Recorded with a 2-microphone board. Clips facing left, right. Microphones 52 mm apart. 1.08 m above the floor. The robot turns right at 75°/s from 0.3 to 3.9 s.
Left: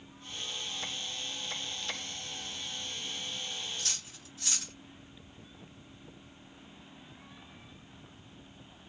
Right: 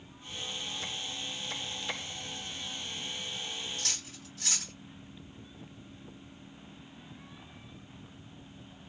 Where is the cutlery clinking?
75° right (ahead or behind), 1.5 m; by 4.7 s 80° right, 1.5 m.